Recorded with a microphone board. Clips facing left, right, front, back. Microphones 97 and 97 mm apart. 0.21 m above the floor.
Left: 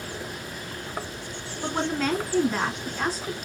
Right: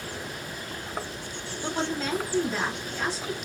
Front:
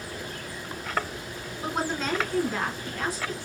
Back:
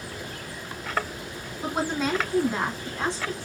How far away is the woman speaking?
About 2.5 m.